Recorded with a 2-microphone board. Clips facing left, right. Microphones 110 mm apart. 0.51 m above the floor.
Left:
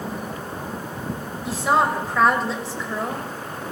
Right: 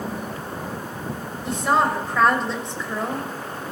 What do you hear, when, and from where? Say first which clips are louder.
1.4 s a woman speaking: even; 5° left (ahead or behind), 2 m